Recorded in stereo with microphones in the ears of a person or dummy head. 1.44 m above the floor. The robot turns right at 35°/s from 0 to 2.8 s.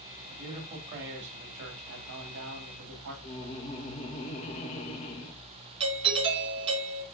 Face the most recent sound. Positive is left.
turn(degrees=-25)  # may be behind; listen again after turning